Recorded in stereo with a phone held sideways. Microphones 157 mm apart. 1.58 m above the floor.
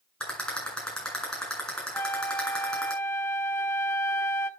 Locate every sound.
0.2 s a rattle: 5° left (ahead or behind), 8 m
1.9 s a flute: 15° left (ahead or behind), 1.2 m